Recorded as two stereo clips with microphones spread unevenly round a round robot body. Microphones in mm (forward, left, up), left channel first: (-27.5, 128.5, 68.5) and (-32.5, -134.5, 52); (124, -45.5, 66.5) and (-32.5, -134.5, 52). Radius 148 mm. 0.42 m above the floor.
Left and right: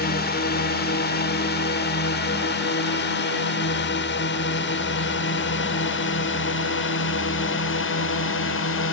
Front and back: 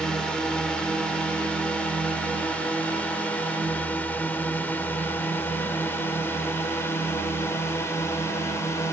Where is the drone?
120° left; by 8.9 s 105° left.